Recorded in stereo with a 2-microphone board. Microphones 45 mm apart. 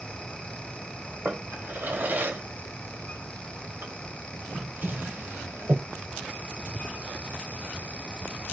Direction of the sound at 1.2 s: 45° right (ahead or behind).